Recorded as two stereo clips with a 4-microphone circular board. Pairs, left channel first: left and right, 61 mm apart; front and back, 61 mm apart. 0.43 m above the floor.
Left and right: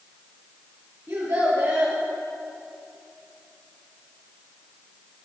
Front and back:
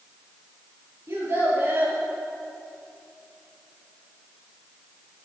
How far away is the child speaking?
About 6 m.